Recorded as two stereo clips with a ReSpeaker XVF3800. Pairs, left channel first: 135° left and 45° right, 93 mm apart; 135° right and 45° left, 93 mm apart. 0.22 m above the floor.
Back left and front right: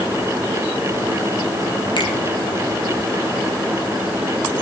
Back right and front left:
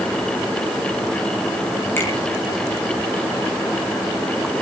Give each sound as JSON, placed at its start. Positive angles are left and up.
{"t": 2.0, "sound": "a finger snap", "azimuth_deg": 160, "distance_m": 6.5}